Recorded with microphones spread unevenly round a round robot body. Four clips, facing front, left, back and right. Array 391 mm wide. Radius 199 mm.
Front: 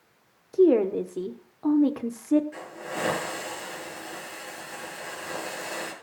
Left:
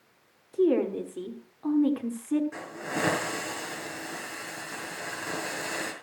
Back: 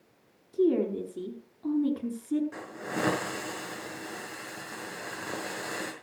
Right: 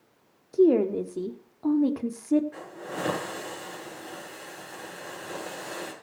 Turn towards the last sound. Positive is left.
turn(degrees=150)